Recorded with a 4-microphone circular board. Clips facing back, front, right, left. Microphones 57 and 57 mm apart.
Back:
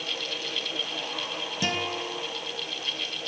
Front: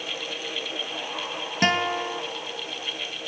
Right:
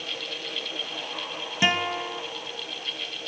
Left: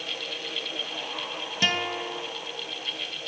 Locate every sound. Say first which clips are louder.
1.6 s a guitar: front 8 dB, right 3 dB; 20° right, 2 m